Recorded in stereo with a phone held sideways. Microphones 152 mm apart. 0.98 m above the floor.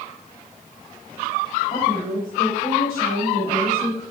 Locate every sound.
1.7 s a woman speaking: 60° left (ahead or behind), 4 m; by 4.0 s 80° left, 4.5 m